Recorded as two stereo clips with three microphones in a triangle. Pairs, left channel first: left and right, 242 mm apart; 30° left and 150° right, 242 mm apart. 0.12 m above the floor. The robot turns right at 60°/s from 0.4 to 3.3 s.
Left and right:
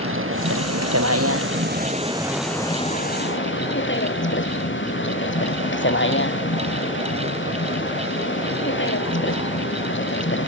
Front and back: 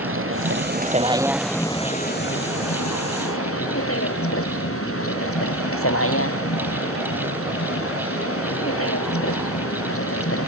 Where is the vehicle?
120° right; by 10.5 s 50° left.